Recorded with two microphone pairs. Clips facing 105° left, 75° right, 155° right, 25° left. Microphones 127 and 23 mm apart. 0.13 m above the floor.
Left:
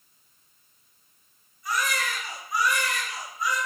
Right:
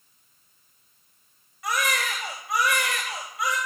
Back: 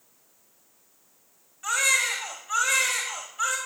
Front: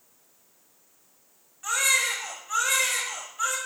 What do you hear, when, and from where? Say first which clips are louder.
1.6 s a baby crying: right 2 dB, back 1 dB; 70° right, 4 m